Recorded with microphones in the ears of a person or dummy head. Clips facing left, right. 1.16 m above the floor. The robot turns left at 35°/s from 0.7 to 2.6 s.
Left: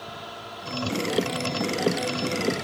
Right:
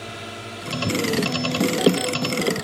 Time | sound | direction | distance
0.0 | a drone | 145° right | ?